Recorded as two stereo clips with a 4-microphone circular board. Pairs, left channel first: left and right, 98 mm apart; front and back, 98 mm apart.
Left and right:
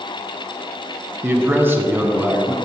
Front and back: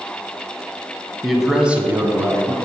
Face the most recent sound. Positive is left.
turn(degrees=-150)